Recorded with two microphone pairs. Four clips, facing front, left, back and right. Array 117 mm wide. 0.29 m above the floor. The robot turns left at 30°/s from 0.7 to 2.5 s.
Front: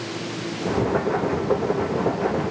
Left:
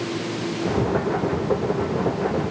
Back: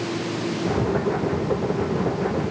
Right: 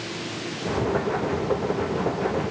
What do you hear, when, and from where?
Only background noise.